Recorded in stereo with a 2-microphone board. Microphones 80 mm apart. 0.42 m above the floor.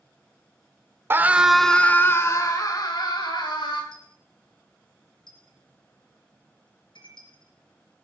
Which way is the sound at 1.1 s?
30° right (ahead or behind).